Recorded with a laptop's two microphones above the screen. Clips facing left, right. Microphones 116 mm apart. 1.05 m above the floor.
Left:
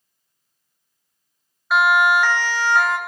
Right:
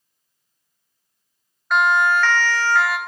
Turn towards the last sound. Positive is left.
turn(degrees=25)  # may be behind; listen again after turning